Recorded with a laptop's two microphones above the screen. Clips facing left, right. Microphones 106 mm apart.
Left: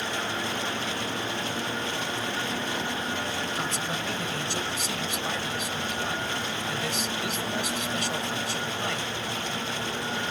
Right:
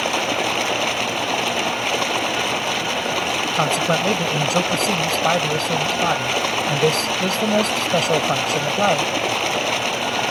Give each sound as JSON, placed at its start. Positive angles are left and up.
{"t": 0.0, "sound": "running water", "side_deg": -75}
{"t": 3.5, "sound": "a man speaking", "side_deg": -60}